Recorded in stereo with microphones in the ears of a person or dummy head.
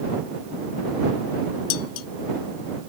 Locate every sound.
1.7 s dishes clattering: 80° left